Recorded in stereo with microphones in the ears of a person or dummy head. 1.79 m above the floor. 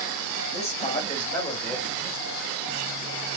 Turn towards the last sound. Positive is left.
turn(degrees=15)  # may be behind; listen again after turning